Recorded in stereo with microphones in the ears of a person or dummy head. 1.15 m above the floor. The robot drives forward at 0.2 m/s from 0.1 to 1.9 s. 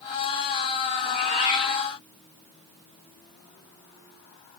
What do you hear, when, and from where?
1.0 s a cat meowing: 40° left (ahead or behind), 0.7 m; by 1.9 s 35° left (ahead or behind), 0.8 m